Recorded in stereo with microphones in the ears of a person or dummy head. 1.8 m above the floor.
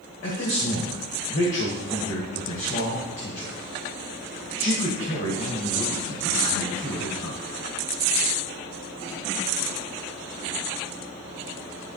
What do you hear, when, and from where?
0.2 s a man speaking: 40° left (ahead or behind), 1.8 m